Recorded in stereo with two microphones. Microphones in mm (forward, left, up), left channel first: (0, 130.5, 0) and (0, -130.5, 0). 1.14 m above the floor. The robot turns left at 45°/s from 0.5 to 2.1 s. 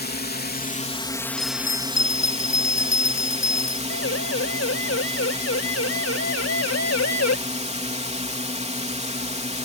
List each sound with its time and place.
0.0 s a drone: 45° left; by 9.7 s 30° right
1.4 s a bell: 105° left; by 3.8 s 70° left
3.9 s a siren: 60° left (ahead or behind); by 7.4 s 75° left (ahead or behind)